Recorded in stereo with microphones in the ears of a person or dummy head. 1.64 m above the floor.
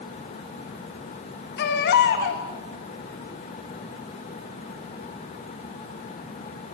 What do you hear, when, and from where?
1.6 s a baby crying: 55° left (ahead or behind), 1.0 m